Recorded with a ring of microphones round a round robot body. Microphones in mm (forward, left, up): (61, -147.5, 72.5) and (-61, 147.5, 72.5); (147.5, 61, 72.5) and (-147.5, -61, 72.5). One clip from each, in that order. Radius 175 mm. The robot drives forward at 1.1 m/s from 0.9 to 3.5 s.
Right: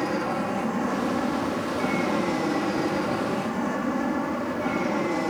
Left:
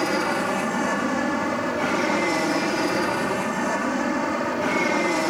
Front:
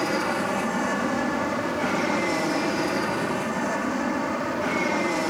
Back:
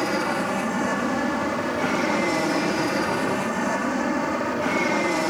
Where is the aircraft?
105° left; by 5.3 s 115° left.